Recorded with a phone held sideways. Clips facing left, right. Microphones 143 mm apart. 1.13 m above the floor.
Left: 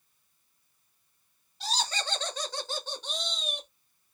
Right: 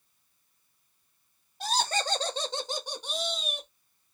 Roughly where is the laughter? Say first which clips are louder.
Right 5 dB; right.